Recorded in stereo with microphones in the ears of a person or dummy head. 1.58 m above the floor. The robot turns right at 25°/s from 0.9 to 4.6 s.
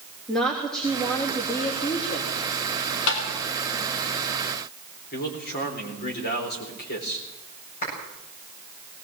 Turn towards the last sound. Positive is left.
turn(degrees=50)  # may be behind; listen again after turning